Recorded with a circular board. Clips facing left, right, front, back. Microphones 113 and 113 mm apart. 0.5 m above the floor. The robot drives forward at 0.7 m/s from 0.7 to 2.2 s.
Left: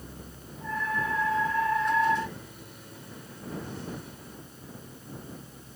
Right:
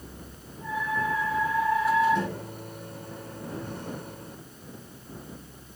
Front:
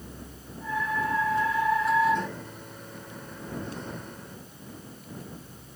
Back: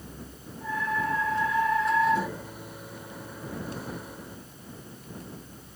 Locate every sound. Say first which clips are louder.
2.1 s a microwave: right 4 dB, back 2 dB; 100° right